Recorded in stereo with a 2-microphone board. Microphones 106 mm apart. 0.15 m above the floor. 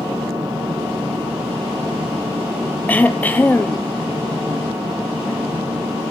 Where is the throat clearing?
15° left (ahead or behind), 0.7 m.